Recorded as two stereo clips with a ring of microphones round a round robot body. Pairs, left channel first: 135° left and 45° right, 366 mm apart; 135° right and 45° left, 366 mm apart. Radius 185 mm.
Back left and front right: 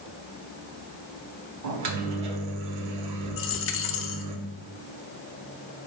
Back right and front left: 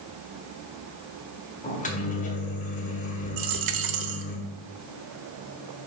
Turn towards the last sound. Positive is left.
turn(degrees=80)